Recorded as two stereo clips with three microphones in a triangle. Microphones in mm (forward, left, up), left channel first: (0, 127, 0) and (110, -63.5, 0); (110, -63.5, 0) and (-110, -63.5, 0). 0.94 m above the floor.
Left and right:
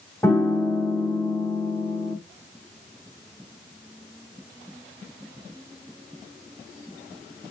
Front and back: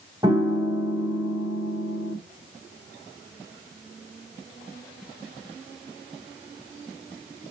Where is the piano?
175° left, 0.9 m.